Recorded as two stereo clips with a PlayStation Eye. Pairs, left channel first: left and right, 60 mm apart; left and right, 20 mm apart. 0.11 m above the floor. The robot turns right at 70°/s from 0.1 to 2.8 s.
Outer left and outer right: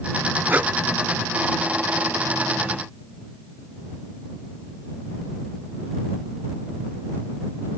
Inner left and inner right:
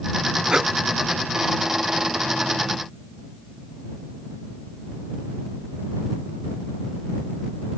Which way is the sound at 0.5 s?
35° right (ahead or behind).